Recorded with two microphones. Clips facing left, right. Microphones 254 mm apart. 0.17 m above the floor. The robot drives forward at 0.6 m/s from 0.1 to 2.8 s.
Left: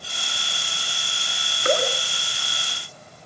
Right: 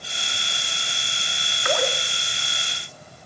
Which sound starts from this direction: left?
Dripping, at 1.6 s.